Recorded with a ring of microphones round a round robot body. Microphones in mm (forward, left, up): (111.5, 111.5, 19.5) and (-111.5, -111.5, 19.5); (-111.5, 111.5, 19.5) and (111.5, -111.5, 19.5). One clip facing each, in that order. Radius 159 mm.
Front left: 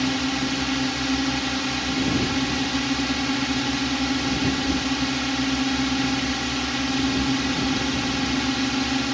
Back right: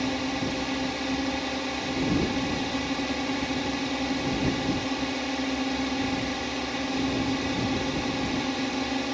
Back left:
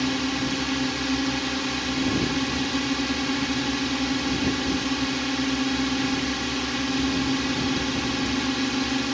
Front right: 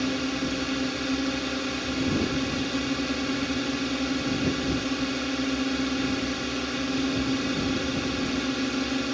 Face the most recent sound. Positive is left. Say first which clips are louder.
# front left 4 dB, back left 2 dB
turn(degrees=65)